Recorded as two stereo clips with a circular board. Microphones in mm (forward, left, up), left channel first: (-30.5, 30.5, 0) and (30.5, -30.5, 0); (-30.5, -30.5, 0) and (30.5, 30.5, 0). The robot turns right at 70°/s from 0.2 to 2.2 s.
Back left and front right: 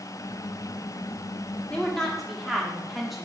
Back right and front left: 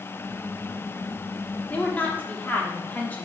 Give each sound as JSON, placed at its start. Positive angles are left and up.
{"t": 1.7, "sound": "a woman speaking", "azimuth_deg": -170, "distance_m": 1.2}